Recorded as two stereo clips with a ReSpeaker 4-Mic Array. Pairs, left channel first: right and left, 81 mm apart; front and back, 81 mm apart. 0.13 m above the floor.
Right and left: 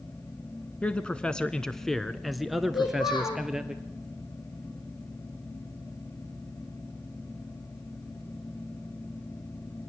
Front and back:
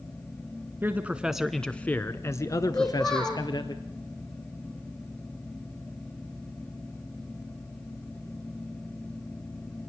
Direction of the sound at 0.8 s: 150° right.